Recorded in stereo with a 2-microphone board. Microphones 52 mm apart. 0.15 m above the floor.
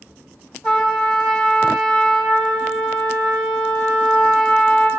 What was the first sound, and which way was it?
A trumpet, 10° left (ahead or behind).